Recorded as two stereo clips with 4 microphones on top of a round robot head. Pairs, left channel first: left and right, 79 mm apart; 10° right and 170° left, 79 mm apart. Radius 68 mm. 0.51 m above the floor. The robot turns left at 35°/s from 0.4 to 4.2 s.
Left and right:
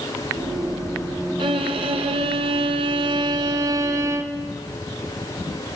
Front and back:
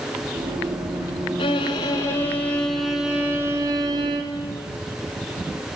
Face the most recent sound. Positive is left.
turn(degrees=-145)